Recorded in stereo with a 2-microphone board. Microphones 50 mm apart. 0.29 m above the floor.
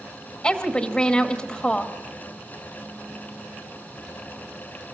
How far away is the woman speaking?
About 1.3 m.